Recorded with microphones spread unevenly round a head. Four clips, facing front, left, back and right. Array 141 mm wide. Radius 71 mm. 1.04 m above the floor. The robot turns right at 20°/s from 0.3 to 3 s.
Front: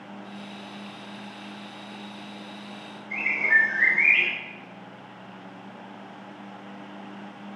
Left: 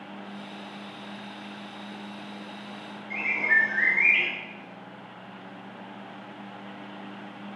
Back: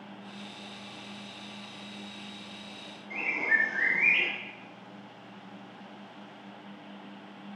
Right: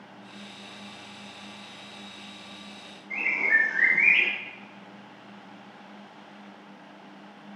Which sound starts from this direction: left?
A bird, at 3.1 s.